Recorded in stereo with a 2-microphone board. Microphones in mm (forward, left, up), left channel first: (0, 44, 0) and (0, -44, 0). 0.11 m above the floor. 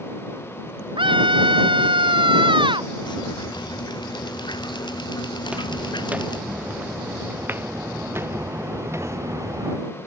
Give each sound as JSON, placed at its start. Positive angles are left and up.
{"t": 1.0, "sound": "a scream", "side_deg": -75}
{"t": 3.0, "sound": "dripping", "side_deg": 60}
{"t": 5.4, "sound": "footsteps", "side_deg": -10}